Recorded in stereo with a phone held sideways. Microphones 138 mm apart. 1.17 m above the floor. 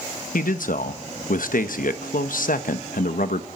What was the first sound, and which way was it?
A man speaking, 80° left.